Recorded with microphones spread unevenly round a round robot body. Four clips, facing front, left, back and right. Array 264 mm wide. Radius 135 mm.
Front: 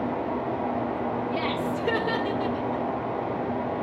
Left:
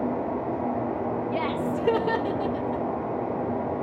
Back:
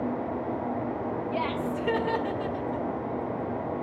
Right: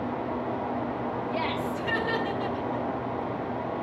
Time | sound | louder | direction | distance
1.3 | laughter | left 3 dB, front 2 dB | 70° left | 1.2 m